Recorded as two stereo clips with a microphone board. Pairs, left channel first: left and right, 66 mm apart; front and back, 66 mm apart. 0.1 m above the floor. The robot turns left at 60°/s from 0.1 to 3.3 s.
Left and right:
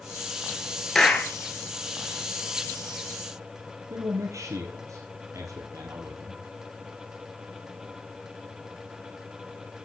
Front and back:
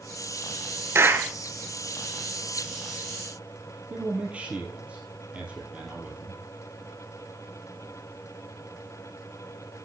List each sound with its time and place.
0.9 s a clap: 170° left, 1.6 m; by 1.3 s 150° left, 1.6 m
3.9 s a man speaking: 110° right, 3 m